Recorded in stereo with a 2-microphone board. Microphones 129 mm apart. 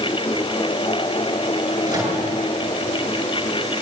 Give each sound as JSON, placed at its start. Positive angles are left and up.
{"t": 1.9, "sound": "a microwave", "side_deg": -30, "distance_m": 8.5}